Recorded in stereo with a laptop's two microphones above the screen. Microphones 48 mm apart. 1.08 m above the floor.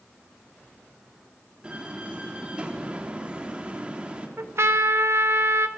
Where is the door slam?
20° right (ahead or behind), 2 m.